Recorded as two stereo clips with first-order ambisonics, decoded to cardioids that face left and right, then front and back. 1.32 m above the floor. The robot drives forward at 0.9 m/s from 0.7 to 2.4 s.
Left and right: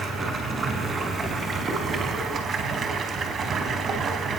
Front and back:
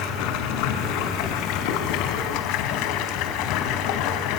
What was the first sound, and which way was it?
Running water, 20° right.